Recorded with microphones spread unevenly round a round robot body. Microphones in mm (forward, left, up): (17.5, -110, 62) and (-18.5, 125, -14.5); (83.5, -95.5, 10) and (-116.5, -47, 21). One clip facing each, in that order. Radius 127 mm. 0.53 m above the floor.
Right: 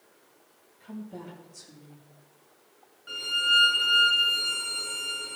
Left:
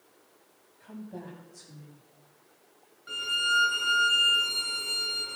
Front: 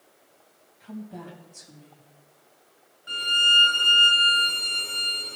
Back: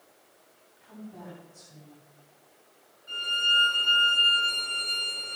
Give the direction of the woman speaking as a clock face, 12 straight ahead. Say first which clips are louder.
Right 2 dB, front 5 dB; 12 o'clock.